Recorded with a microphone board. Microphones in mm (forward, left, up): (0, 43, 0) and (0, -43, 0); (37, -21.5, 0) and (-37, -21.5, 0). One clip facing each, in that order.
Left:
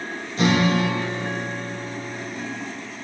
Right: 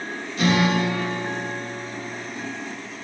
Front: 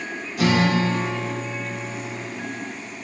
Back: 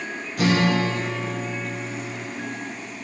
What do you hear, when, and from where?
0.4 s a guitar: 145° left, 5 m